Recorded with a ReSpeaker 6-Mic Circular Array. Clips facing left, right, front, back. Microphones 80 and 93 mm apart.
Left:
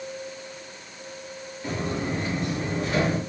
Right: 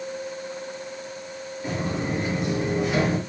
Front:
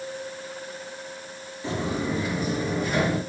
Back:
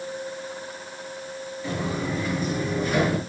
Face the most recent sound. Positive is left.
turn(degrees=-145)